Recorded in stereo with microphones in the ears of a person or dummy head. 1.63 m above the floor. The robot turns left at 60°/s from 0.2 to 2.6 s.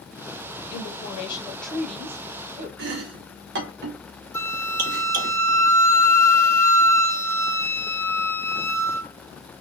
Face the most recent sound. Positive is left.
turn(degrees=25)  # may be behind; listen again after turning